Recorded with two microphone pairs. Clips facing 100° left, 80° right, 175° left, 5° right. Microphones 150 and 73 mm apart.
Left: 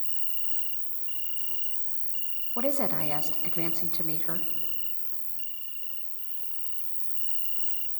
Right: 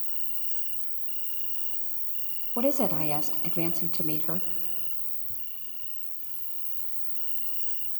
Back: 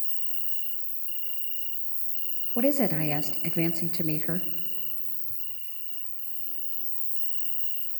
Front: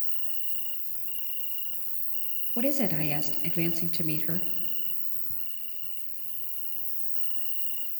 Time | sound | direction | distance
0.0 | an insect | 25° right | 0.7 m
2.6 | a woman speaking | 145° right | 0.6 m